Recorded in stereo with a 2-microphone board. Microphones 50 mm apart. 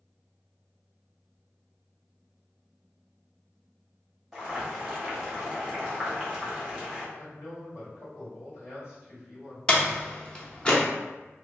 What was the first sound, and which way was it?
Boiling, 5° right (ahead or behind).